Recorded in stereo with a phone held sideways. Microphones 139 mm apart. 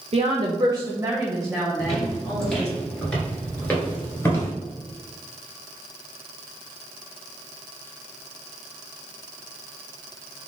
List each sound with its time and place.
0.1 s a woman speaking: 50° right (ahead or behind), 0.6 m; by 2.7 s 20° left (ahead or behind), 1.5 m
1.8 s footsteps: centre (ahead or behind), 1.6 m; by 4.5 s 20° left (ahead or behind), 1.5 m